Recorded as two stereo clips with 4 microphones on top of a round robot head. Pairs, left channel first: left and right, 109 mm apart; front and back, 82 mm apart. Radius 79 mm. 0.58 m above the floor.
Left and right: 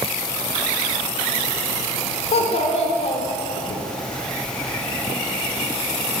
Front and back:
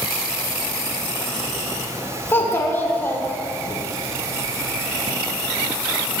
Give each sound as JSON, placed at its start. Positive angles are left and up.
{"t": 2.3, "sound": "a child speaking", "azimuth_deg": 65, "distance_m": 1.0}